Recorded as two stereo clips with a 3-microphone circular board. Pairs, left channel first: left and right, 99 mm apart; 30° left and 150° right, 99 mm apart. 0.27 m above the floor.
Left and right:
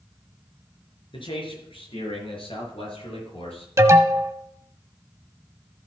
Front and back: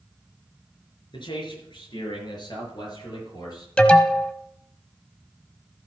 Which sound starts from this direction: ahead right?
An alarm, at 3.8 s.